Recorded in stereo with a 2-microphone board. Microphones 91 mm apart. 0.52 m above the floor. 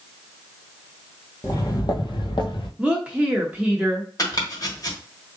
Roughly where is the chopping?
Left.